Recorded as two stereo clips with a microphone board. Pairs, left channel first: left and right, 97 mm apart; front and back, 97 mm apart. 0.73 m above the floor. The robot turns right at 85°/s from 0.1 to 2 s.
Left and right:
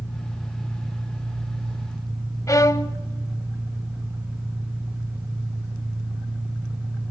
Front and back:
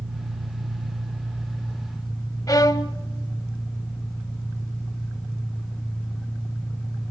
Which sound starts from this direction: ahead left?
A violin, at 2.5 s.